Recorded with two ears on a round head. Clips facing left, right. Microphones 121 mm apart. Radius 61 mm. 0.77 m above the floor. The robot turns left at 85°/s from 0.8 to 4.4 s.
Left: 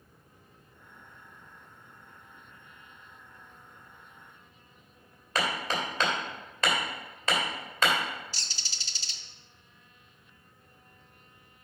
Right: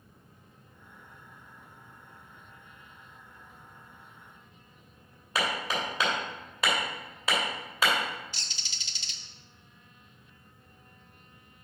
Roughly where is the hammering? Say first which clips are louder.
Even; centre.